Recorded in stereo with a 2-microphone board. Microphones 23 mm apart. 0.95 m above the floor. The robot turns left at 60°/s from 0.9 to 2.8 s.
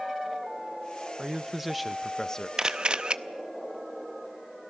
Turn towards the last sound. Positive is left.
turn(degrees=-45)  # may be behind; listen again after turning